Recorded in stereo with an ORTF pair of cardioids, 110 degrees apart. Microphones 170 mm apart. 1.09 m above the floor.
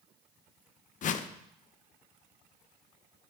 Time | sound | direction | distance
1.0 | a whoosh | 50° left | 0.6 m